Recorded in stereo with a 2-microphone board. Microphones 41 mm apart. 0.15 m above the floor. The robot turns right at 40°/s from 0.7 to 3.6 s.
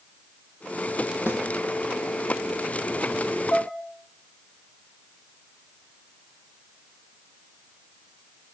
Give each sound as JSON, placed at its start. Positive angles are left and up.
{"t": 1.3, "sound": "a snare drum", "side_deg": 65, "distance_m": 5.5}
{"t": 3.5, "sound": "dishes clattering", "side_deg": 80, "distance_m": 6.5}